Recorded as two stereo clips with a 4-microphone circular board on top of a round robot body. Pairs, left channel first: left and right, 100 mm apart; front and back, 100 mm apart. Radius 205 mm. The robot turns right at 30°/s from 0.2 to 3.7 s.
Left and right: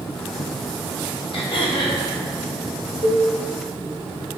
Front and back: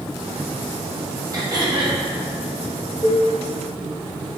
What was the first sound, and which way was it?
Throat clearing, 120° left.